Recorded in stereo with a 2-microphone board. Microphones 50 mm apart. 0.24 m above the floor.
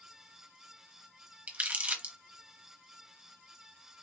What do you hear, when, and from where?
1.5 s crumpling: 30° right (ahead or behind), 0.9 m